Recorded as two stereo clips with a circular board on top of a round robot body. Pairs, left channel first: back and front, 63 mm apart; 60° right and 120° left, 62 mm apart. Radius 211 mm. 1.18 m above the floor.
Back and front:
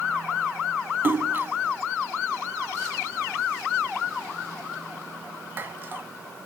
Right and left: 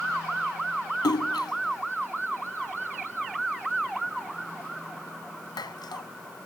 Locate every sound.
1.0 s a splash: 60° right